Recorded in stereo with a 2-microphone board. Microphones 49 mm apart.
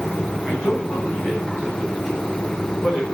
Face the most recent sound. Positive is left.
turn(degrees=40)  # may be behind; listen again after turning